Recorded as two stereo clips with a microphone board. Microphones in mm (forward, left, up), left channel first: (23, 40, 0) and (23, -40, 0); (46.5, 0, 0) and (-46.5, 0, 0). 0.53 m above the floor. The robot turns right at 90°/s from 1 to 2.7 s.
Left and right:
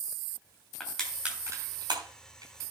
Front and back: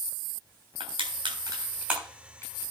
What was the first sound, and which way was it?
Crushing, 170° left.